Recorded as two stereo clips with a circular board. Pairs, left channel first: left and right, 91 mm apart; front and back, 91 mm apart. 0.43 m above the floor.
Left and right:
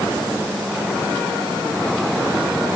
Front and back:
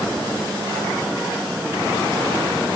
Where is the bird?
I don't hear a bird.